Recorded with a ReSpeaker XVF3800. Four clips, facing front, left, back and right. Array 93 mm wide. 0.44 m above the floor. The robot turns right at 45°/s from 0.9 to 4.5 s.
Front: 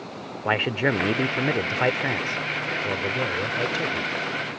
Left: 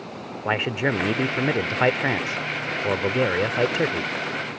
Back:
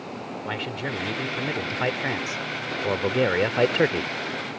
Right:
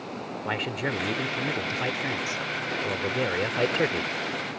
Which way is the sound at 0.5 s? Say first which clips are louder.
Left 7 dB, front 9 dB; 35° left.